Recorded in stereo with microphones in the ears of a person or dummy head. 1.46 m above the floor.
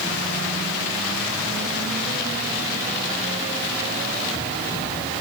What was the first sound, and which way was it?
Only background noise.